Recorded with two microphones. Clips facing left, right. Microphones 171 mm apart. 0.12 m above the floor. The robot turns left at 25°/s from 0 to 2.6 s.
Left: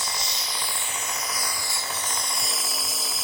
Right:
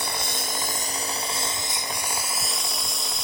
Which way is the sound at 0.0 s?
115° right.